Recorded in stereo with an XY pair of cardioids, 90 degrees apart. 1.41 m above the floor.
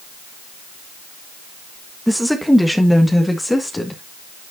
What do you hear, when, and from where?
2.1 s a woman speaking: straight ahead, 1.5 m; by 4.0 s 15° left, 2.5 m